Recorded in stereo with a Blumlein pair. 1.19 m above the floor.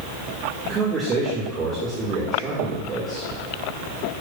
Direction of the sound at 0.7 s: 20° right.